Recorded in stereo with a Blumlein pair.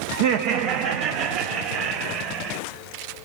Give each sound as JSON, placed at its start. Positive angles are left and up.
{"t": 0.1, "sound": "laughter", "azimuth_deg": -55, "distance_m": 0.8}